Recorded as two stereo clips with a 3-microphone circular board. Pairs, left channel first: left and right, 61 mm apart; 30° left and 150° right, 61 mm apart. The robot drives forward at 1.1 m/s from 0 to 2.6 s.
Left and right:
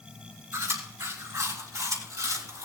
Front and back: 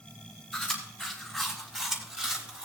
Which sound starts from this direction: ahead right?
Chewing, at 0.5 s.